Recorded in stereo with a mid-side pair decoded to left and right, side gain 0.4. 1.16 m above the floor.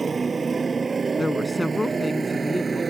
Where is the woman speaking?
15° left.